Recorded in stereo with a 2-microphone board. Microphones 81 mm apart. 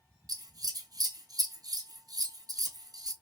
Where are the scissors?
55° right (ahead or behind), 1.2 m.